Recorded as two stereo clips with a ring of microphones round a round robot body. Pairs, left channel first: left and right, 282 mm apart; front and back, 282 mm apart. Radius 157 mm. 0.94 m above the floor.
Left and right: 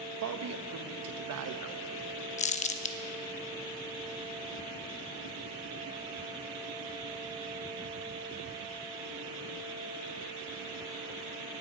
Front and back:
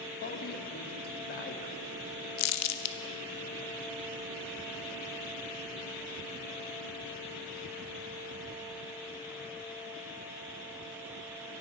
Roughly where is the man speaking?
Ahead right.